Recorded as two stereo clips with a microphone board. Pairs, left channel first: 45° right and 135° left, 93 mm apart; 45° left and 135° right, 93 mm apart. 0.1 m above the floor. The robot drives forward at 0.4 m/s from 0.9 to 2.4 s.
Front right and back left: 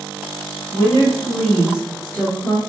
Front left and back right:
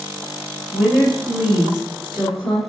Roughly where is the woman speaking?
Ahead right.